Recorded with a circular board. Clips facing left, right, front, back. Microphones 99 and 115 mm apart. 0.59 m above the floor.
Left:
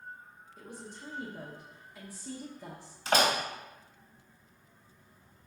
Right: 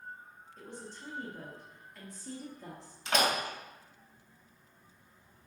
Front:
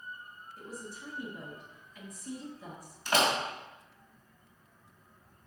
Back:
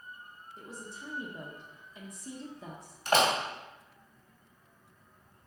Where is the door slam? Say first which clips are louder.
Left 3 dB, back 2 dB; 140° left, 2 m.